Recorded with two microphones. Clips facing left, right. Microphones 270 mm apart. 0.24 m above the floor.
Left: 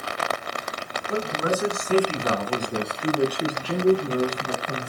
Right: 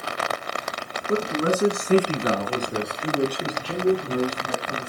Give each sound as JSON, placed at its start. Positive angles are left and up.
{"t": 1.1, "sound": "a man speaking", "side_deg": -45, "distance_m": 2.0}